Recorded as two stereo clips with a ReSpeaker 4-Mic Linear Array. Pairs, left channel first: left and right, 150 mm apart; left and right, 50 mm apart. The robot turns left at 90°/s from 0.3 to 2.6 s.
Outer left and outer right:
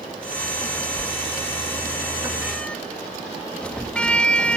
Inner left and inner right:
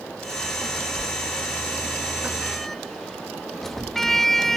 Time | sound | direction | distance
1.0 | a sliding door | 40° right (ahead or behind) | ?